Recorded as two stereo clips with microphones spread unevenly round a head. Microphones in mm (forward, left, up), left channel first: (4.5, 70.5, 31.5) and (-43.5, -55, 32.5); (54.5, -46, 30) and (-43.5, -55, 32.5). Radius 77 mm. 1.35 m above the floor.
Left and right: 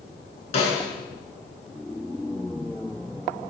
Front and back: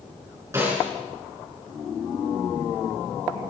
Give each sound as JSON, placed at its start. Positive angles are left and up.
{"t": 0.5, "sound": "a snare drum", "azimuth_deg": 115, "distance_m": 5.5}